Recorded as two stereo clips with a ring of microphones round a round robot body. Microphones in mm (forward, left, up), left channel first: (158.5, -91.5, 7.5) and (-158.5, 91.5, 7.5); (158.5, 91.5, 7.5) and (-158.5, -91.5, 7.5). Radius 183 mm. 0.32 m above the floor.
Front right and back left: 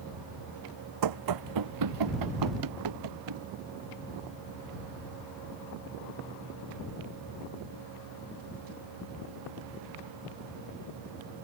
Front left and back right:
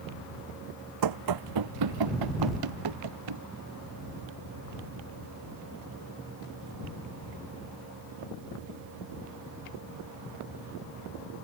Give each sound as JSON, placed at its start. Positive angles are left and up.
{"t": 1.0, "sound": "running footsteps", "azimuth_deg": 180}